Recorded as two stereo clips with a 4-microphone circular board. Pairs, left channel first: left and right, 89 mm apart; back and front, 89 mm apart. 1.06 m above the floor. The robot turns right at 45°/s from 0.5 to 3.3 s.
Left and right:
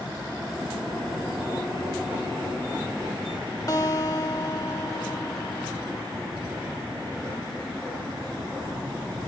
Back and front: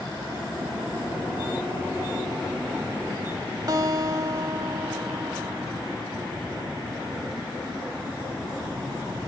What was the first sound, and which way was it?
A guitar, 40° left.